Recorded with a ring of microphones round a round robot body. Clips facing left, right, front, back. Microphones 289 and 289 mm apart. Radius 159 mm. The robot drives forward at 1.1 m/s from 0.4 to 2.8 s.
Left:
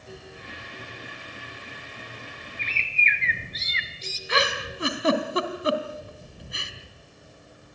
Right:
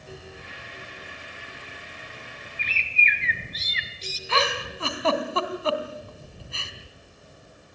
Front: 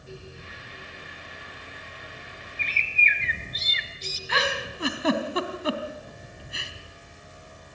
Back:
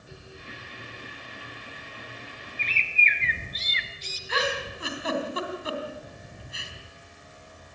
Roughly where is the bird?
Ahead right.